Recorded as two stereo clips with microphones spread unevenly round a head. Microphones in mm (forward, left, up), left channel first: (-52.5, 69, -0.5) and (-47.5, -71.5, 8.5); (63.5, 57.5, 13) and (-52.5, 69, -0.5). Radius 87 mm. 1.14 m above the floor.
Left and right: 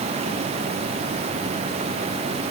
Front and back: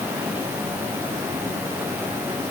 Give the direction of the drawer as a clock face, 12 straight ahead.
No drawer in this recording.